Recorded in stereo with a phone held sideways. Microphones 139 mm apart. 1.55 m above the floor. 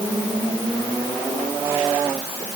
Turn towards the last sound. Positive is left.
No sound to turn to.